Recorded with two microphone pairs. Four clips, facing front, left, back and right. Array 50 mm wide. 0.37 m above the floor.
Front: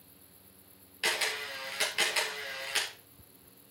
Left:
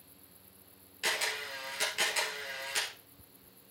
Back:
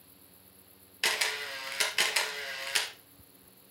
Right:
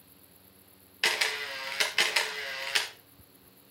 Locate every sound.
1.0 s a camera shutter: 105° right, 2.5 m